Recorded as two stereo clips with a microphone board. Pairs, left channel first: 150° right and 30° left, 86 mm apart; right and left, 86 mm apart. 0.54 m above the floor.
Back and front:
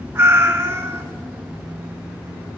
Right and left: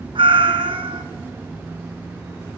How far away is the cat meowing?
About 1.6 m.